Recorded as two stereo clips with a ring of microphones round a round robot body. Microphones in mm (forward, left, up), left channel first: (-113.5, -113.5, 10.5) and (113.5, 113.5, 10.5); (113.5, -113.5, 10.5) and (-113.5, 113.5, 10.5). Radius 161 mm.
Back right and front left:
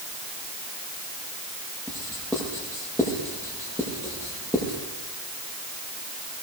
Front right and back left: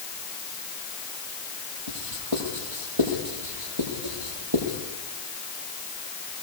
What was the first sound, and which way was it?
Writing, 140° left.